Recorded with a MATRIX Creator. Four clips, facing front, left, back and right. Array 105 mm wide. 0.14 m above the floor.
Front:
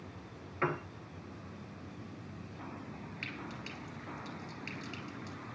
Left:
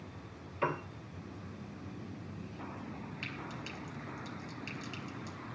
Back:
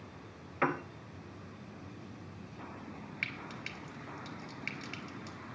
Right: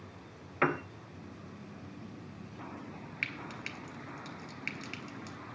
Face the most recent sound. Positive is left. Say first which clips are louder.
# right 1 dB, even
turn(degrees=-115)